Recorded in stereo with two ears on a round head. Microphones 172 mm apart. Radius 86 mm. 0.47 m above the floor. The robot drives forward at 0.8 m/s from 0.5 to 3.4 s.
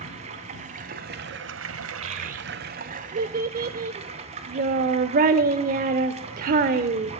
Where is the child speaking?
35° right (ahead or behind), 1.0 m; by 7.1 s 45° right (ahead or behind), 0.7 m.